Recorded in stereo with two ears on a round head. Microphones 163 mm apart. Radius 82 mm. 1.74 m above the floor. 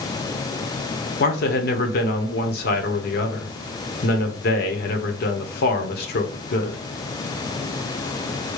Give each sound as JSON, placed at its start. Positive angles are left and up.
{"t": 1.2, "sound": "a man speaking", "side_deg": 55, "distance_m": 1.1}